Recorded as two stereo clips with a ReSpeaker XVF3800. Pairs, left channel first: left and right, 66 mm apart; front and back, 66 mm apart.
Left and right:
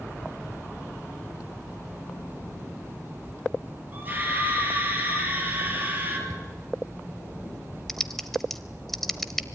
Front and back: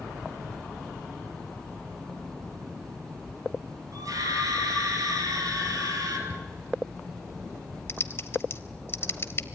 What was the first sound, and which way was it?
A scream, 150° right.